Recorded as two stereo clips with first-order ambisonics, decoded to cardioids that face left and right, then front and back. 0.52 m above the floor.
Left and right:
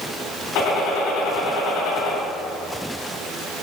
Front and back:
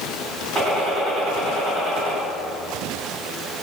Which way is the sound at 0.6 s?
100° left.